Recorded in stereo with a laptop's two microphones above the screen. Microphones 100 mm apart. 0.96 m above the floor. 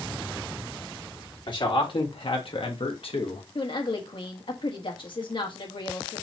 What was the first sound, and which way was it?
A man speaking, 55° left (ahead or behind).